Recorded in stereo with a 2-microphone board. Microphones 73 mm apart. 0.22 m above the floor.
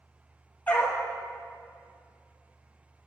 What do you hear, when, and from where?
0.7 s a dog barking: 25° left (ahead or behind), 1.6 m